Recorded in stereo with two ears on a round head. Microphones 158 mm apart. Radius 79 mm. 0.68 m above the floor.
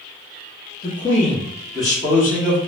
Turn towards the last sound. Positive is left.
turn(degrees=5)  # may be behind; listen again after turning